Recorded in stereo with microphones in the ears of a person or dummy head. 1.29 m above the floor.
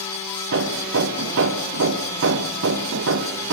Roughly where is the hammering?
Right.